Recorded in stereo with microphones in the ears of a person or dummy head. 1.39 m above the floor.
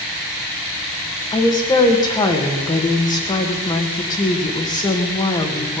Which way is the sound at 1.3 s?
20° left (ahead or behind).